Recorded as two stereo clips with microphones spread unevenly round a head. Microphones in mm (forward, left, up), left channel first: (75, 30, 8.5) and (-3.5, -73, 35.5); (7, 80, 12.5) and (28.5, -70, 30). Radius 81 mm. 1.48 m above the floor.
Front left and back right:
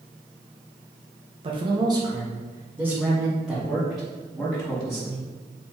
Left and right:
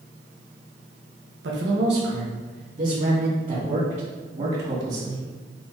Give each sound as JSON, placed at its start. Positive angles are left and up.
{"t": 1.4, "sound": "a man speaking", "azimuth_deg": -85, "distance_m": 1.6}